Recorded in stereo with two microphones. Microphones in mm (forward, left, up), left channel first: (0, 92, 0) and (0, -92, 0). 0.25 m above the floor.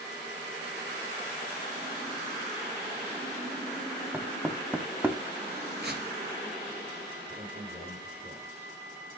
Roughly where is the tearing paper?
Right.